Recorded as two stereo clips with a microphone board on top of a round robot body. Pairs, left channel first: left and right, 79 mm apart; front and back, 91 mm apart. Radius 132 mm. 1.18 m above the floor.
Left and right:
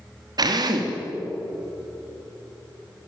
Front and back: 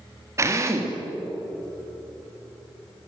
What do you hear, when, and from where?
0.4 s a drill: 125° right, 2.5 m